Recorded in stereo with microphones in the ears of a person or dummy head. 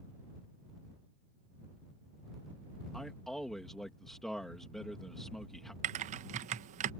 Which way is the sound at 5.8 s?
50° right (ahead or behind).